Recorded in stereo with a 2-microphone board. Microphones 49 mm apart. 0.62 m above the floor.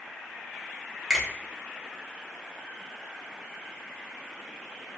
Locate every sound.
1.1 s a finger snap: 5° right (ahead or behind), 0.9 m